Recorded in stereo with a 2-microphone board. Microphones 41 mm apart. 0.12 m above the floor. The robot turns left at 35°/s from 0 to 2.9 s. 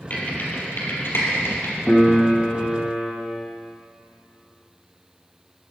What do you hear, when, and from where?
0.1 s typing on a keyboard: 40° left (ahead or behind), 4 m; by 1.7 s 65° left (ahead or behind), 4 m
1.9 s a piano: 165° left, 4.5 m; by 3.1 s 130° left, 4.5 m